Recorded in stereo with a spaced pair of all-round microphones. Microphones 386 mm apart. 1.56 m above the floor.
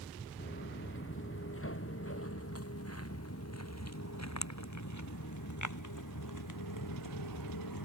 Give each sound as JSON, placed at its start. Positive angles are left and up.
{"t": 0.4, "sound": "footsteps", "side_deg": 30}